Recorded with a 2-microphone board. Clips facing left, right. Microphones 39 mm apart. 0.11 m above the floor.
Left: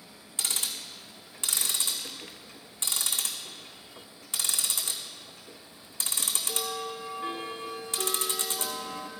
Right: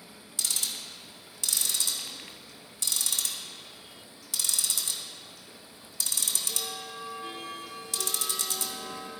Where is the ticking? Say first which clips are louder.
Left 1 dB; 35° left (ahead or behind), 1.1 m.